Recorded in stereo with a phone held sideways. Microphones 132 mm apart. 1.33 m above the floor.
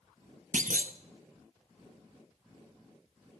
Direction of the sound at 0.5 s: 80° right.